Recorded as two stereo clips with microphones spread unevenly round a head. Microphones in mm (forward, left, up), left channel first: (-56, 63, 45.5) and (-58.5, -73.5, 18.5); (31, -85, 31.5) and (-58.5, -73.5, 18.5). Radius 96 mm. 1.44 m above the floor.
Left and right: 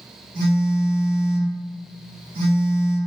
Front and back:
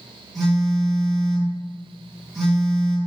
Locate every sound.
0.3 s a phone buzzing: 80° right, 0.9 m